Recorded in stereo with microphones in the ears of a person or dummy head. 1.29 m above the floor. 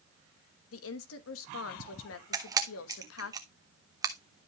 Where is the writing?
I don't hear writing.